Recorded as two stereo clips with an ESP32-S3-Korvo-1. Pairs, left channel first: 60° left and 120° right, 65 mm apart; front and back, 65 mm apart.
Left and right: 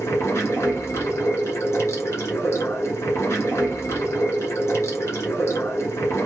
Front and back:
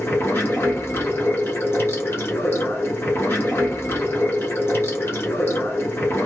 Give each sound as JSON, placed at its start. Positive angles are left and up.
{"t": 0.0, "sound": "running water", "azimuth_deg": 35, "distance_m": 1.3}